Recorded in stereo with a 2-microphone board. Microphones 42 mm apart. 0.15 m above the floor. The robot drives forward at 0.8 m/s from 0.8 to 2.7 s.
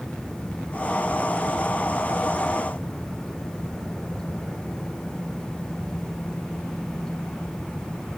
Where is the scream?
No scream in this recording.